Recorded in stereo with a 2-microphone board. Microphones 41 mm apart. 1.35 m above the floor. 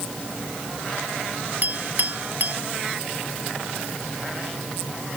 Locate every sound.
1.6 s a clink: 45° right (ahead or behind)